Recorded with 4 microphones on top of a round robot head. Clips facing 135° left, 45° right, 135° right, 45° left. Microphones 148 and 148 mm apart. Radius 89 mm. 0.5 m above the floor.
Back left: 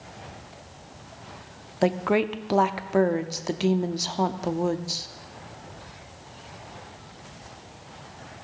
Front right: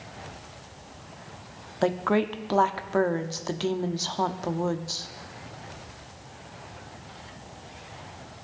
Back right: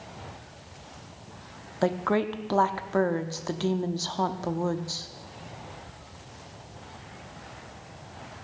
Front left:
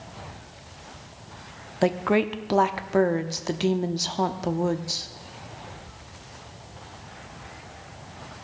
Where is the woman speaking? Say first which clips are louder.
Back left 1 dB, front left 3 dB; 85° left, 0.7 m.